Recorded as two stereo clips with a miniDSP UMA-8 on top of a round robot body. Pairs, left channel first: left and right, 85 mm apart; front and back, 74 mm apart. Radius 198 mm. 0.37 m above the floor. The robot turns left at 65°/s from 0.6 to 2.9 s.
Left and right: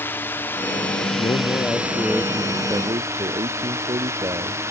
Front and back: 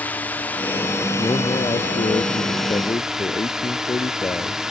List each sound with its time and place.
0.0 s a drone: 50° left; by 4.7 s 100° right
1.2 s a man speaking: 60° left; by 4.6 s 50° right